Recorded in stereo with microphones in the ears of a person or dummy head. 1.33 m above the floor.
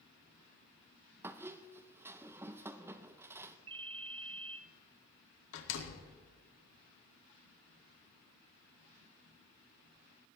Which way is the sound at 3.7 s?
30° right (ahead or behind).